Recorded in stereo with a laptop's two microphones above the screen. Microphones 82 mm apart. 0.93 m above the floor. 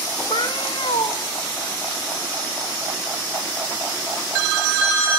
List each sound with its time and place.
0.3 s a cat meowing: 80° left, 1.2 m